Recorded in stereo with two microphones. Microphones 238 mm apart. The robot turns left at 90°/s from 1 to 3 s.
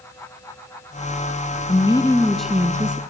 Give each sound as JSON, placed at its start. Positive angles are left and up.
{"t": 1.7, "sound": "a woman speaking", "side_deg": 25, "distance_m": 1.1}